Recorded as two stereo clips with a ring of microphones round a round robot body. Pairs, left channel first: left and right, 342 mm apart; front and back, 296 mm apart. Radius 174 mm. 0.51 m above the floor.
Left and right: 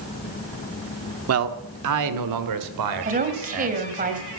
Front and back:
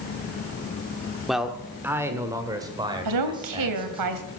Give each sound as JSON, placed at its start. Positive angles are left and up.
{"t": 1.3, "sound": "a man speaking", "azimuth_deg": -90, "distance_m": 1.3}
{"t": 3.0, "sound": "a woman speaking", "azimuth_deg": -155, "distance_m": 2.5}